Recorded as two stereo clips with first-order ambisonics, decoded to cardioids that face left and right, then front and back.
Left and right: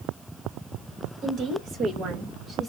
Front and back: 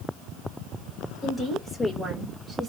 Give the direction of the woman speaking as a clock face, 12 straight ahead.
2 o'clock.